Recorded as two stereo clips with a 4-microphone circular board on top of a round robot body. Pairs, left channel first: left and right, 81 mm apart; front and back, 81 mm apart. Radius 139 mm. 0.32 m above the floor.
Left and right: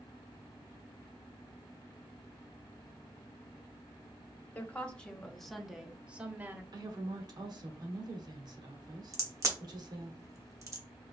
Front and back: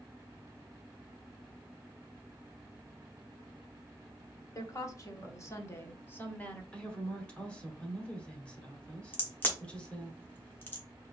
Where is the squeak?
No squeak in this recording.